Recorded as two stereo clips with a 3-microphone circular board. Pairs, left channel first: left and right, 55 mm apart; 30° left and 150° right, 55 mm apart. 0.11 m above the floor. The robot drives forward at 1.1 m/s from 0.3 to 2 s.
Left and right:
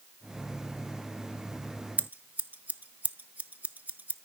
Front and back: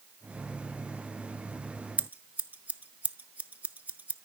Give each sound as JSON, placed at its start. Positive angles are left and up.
{"t": 2.0, "sound": "scissors", "azimuth_deg": -115, "distance_m": 0.6}